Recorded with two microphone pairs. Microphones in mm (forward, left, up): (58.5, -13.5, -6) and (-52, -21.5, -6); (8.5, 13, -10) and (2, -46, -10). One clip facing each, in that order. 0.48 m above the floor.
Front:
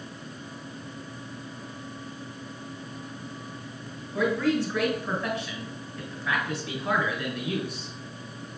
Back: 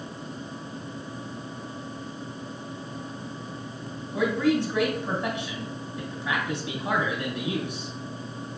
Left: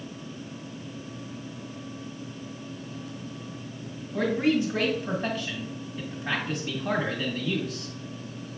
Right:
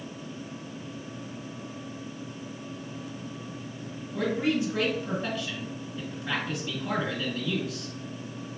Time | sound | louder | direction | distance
4.1 | a man speaking | back 1 dB, left 3 dB | 115° left | 1.6 m